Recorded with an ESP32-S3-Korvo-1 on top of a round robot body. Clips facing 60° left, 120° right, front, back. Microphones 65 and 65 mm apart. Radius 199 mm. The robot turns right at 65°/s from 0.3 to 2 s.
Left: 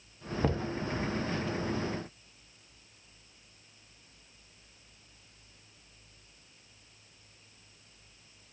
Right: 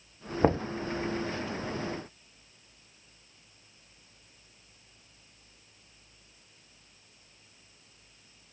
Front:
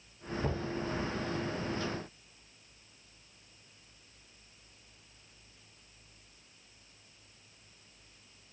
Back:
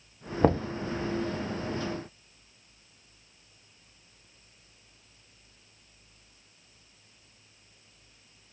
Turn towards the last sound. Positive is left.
turn(degrees=-70)